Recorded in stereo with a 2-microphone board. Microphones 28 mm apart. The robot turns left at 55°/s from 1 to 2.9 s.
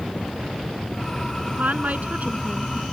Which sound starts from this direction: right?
A woman speaking, at 1.5 s.